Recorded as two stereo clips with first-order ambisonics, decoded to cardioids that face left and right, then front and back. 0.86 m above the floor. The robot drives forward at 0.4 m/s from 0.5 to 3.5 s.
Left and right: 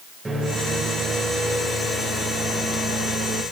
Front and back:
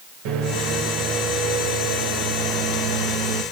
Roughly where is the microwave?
Behind.